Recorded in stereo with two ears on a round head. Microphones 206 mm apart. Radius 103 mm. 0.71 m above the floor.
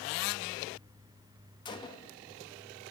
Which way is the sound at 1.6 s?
20° left (ahead or behind).